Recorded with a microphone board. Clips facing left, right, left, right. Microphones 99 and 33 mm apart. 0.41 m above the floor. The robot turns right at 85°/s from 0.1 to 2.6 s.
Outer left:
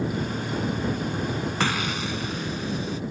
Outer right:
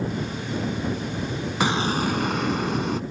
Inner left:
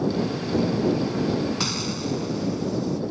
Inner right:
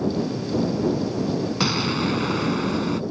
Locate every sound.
1.6 s an explosion: 165° right; by 3.0 s 80° right